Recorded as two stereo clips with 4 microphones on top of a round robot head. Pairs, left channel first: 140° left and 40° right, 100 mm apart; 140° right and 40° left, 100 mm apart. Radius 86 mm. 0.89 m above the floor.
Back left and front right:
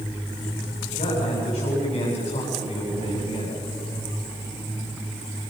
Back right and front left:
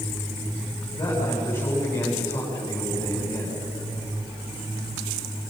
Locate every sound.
1.0 s a man speaking: 150° left, 7 m